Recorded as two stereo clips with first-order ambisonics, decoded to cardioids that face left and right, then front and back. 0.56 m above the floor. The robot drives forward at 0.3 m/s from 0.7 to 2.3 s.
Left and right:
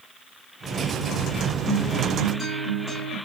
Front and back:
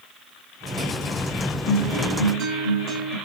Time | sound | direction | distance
1.7 | a guitar | 175° left | 1.4 m